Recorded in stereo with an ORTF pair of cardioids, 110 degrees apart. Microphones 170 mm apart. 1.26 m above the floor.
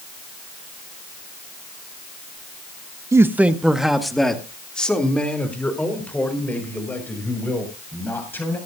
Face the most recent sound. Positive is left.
turn(degrees=10)